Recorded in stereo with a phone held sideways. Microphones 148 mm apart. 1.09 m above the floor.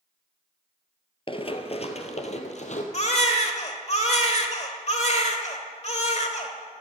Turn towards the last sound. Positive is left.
turn(degrees=50)  # may be behind; listen again after turning